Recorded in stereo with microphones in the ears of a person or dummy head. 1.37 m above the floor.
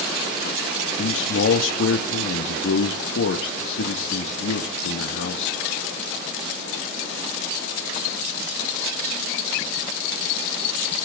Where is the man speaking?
70° left (ahead or behind), 1.8 m.